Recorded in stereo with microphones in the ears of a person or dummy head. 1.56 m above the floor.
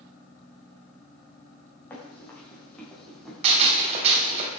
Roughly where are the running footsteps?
Centre.